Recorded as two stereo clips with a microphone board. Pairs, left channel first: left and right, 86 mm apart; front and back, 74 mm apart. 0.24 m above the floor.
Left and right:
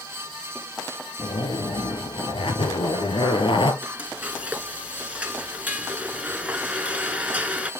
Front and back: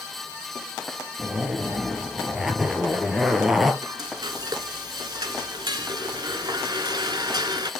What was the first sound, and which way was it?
A zipper, 95° left.